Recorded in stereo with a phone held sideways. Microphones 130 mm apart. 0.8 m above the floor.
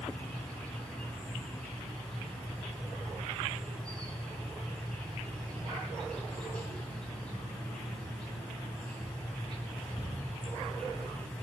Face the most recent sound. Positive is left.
turn(degrees=10)  # may be behind; listen again after turning